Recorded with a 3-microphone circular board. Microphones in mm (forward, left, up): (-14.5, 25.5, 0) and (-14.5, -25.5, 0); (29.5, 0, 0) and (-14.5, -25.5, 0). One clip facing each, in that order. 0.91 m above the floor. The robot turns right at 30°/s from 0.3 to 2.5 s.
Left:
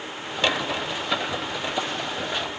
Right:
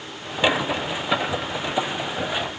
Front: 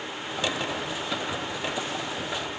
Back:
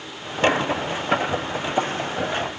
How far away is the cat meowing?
No cat meowing in this recording.